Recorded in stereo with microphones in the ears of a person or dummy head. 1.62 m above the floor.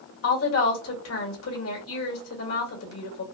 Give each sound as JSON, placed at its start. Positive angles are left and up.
{"t": 0.2, "sound": "a woman speaking", "side_deg": 80, "distance_m": 1.9}